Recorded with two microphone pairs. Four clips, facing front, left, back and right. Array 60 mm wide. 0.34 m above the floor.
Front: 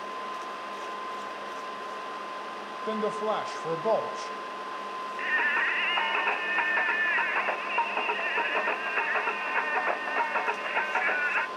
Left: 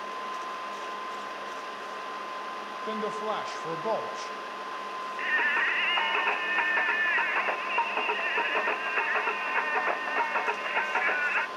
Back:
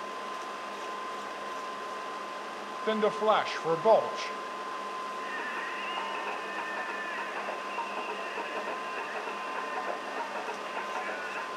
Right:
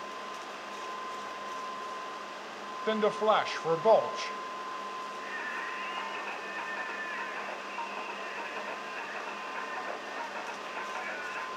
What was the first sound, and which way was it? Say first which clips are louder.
A man speaking: right 6 dB, back 3 dB; 125° right.